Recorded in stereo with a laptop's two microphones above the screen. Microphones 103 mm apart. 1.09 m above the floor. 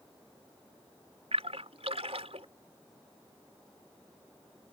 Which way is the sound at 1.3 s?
85° right.